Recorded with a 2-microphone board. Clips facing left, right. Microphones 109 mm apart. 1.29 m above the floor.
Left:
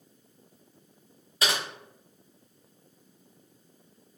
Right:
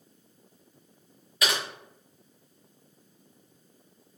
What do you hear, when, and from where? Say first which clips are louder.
1.4 s typing on a keyboard: even; 30° left (ahead or behind), 0.8 m